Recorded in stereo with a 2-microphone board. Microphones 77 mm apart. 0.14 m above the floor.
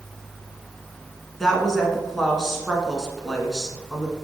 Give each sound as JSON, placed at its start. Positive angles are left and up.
{"t": 1.4, "sound": "a woman speaking", "side_deg": 0, "distance_m": 1.2}